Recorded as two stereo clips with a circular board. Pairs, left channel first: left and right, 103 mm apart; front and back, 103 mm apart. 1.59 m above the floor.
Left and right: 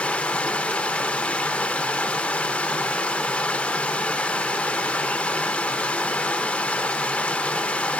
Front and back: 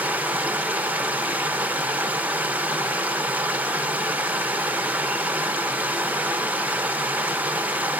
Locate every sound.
0.0 s running water: 145° left, 0.7 m